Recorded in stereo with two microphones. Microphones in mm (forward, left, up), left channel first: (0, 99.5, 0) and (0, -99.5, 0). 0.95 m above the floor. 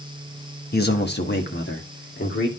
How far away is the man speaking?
About 1.2 m.